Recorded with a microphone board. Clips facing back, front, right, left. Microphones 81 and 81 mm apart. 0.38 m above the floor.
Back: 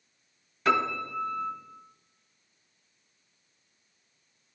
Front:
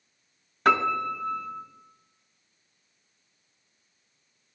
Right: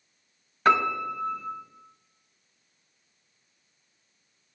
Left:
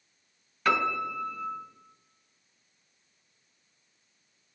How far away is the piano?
About 1.1 m.